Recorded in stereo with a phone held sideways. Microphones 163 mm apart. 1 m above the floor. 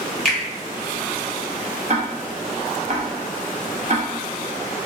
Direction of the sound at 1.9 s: 50° right (ahead or behind).